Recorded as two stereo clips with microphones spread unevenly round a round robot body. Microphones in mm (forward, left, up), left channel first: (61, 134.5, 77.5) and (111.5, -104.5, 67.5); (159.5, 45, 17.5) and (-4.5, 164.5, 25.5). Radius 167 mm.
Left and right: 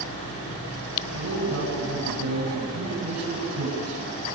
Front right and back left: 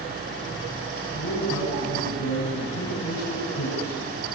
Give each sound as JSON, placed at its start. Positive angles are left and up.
{"t": 1.1, "sound": "a man speaking", "azimuth_deg": -60, "distance_m": 7.0}